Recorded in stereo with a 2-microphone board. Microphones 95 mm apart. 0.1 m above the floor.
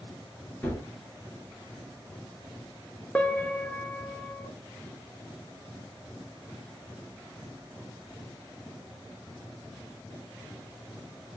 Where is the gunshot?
20° left (ahead or behind), 1.6 m.